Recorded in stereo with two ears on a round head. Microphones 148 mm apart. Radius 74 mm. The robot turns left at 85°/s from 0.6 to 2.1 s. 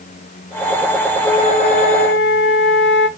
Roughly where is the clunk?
I don't hear a clunk.